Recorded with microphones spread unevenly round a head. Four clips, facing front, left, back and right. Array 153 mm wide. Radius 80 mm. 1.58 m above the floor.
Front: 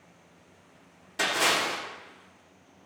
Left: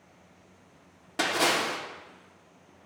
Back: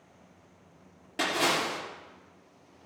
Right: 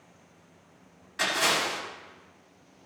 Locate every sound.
1.2 s a splash: 120° left, 3.5 m